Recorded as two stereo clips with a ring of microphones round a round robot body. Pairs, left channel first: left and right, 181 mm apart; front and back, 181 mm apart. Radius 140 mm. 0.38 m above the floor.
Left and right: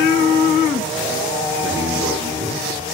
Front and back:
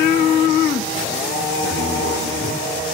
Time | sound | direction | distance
1.6 | a man speaking | 15° right | 9 m